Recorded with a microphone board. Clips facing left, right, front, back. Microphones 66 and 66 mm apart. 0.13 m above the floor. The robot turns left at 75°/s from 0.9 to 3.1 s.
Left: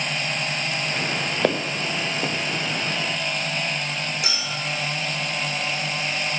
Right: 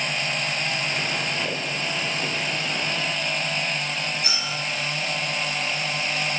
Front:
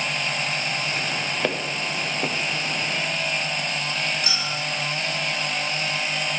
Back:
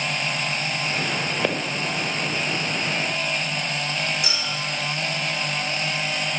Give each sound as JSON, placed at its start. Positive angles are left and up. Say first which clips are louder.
{"t": 1.4, "sound": "footsteps", "louder": "left 5 dB, back 1 dB", "azimuth_deg": 90, "distance_m": 1.6}
{"t": 4.2, "sound": "a clink", "louder": "even, even", "azimuth_deg": 100, "distance_m": 6.5}